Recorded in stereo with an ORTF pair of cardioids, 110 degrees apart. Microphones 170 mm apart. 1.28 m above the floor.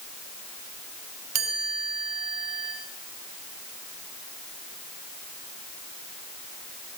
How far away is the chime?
About 2.5 m.